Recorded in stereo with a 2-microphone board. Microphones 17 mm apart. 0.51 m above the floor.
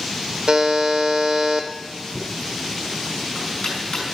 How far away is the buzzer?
About 1.3 m.